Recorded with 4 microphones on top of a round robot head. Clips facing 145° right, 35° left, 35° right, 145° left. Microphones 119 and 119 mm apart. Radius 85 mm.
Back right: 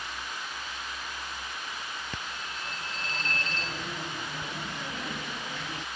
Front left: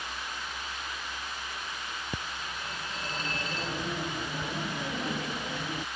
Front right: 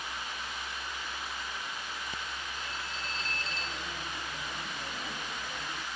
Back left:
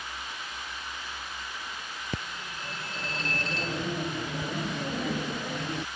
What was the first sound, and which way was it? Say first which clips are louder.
A phone ringing: front left 1 dB, back left 3 dB; 110° left.